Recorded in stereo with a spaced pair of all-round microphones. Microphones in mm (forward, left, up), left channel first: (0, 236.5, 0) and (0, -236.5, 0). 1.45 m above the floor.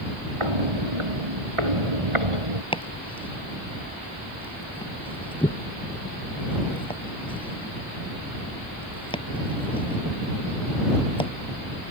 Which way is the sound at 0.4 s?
80° right.